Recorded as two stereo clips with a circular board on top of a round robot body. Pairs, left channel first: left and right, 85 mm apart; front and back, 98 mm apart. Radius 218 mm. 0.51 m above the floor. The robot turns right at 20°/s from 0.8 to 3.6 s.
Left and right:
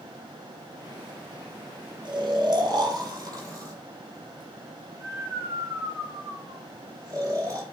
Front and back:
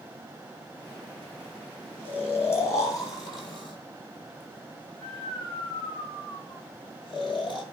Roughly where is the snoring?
Right.